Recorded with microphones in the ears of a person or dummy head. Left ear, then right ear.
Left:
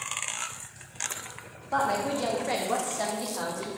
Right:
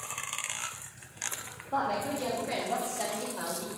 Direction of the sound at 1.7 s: 60° left (ahead or behind).